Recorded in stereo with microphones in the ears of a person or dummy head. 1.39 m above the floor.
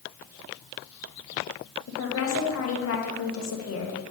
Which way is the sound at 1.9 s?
80° left.